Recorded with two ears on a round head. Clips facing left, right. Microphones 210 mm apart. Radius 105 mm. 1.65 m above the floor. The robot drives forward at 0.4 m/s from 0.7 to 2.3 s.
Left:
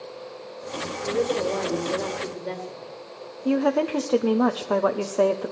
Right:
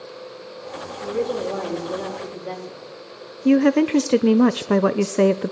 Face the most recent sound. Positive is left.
turn(degrees=-35)  # may be behind; listen again after turning